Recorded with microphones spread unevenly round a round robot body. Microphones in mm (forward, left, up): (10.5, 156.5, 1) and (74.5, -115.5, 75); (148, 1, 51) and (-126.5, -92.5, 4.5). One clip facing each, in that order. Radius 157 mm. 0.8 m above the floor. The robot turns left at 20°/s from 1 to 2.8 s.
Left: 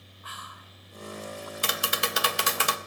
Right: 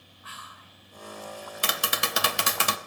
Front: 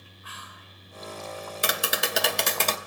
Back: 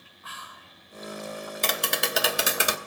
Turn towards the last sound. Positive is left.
turn(degrees=-85)